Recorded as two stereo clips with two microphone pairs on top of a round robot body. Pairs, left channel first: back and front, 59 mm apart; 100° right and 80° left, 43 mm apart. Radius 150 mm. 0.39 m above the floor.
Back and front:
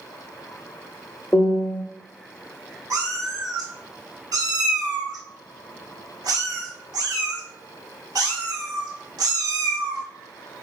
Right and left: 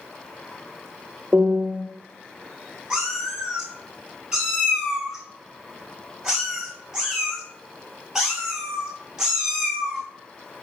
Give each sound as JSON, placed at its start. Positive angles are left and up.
{"t": 1.3, "sound": "a piano", "azimuth_deg": 130, "distance_m": 0.8}
{"t": 2.9, "sound": "a cat meowing", "azimuth_deg": 5, "distance_m": 1.0}